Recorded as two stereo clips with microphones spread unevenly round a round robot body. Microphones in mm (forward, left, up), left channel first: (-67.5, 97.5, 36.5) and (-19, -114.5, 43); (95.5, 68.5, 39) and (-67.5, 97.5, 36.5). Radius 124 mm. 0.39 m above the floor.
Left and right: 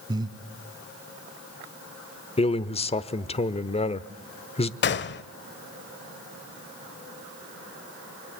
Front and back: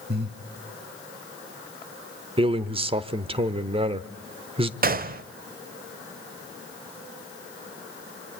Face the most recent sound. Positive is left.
turn(degrees=140)